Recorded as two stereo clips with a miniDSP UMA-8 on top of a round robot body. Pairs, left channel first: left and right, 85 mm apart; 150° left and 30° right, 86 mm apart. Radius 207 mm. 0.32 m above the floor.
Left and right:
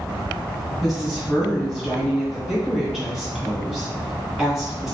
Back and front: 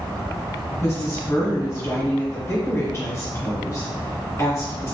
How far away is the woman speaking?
About 1.8 m.